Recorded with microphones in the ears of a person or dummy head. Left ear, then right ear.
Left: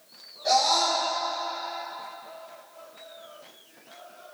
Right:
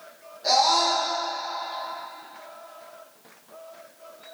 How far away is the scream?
About 1.9 m.